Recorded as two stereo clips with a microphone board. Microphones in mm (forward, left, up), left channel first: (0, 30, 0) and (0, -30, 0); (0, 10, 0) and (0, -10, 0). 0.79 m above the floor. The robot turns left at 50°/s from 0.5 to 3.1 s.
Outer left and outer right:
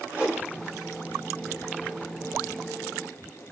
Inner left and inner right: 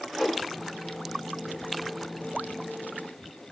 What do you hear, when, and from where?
0.1 s a whoosh: 20° right (ahead or behind), 2.5 m